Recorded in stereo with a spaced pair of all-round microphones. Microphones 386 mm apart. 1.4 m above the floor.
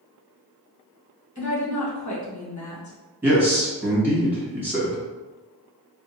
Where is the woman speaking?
45° left (ahead or behind), 1.3 m.